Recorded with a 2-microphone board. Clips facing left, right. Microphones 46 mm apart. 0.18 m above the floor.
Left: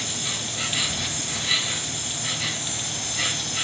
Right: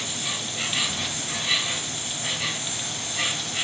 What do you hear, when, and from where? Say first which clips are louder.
0.0 s an insect: even; 10° right (ahead or behind), 1.7 m